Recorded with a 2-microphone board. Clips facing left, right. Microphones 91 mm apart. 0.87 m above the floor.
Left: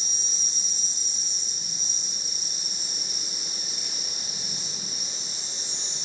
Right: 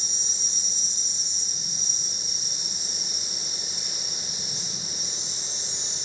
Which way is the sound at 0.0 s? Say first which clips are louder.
Right 1 dB; 25° right (ahead or behind).